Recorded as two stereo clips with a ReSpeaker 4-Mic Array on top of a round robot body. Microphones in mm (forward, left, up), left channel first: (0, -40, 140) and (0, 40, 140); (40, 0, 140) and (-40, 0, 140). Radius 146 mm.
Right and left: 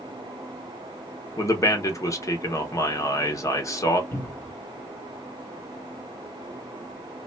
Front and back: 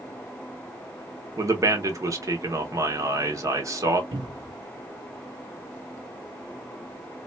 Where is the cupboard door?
150° right, 1.7 m.